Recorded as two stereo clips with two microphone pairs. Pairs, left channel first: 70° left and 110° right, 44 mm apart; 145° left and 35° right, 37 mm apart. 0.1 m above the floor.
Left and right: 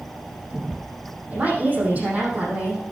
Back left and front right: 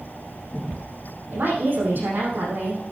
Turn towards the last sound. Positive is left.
turn(degrees=-60)